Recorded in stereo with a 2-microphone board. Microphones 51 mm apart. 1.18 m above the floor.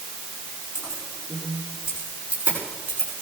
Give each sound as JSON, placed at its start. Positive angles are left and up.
{"t": 0.8, "sound": "keys jangling", "side_deg": -20, "distance_m": 8.5}